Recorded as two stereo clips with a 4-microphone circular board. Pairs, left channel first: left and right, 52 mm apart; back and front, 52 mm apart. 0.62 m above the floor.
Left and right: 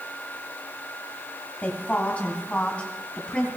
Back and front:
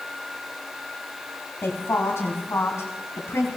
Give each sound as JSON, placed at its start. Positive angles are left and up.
{"t": 1.6, "sound": "a woman speaking", "azimuth_deg": 150, "distance_m": 3.5}